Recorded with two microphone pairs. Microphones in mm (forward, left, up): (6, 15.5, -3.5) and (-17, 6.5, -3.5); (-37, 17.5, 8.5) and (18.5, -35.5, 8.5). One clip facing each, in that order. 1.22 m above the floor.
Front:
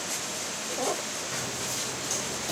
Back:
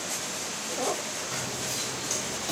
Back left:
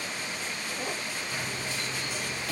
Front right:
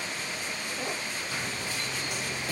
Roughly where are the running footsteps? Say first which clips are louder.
Back 1 dB, even; behind right.